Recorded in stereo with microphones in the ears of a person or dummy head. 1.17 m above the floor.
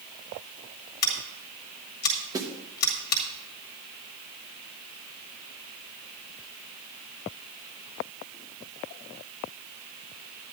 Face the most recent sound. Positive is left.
turn(degrees=-20)  # may be behind; listen again after turning